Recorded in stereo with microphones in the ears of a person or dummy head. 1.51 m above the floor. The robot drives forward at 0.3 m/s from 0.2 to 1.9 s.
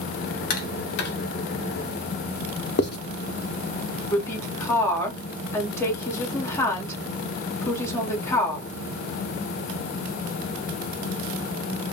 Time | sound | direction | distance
0.5 | tapping | 55° left (ahead or behind) | 0.8 m
2.8 | writing | 55° left (ahead or behind) | 0.5 m
4.1 | a woman speaking | 15° left (ahead or behind) | 1.0 m